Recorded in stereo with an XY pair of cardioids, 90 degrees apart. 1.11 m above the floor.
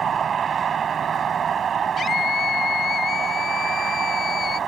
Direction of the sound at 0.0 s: 60° right.